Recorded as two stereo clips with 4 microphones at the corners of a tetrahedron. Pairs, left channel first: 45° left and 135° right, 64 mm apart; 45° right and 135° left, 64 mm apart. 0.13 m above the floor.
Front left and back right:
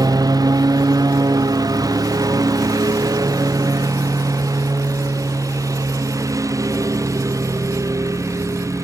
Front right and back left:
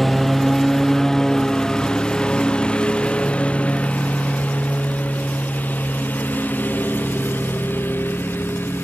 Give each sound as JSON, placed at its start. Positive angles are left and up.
{"t": 0.0, "sound": "a lawn mower", "azimuth_deg": -135}